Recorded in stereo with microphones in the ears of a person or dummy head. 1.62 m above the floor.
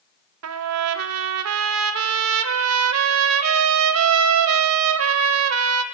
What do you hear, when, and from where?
0.4 s a trumpet: 85° right, 0.5 m